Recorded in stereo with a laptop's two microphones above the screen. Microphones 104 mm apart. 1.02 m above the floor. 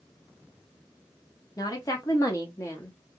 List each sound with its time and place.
1.6 s a woman speaking: 35° left (ahead or behind), 0.9 m; by 3.0 s 25° left (ahead or behind), 0.9 m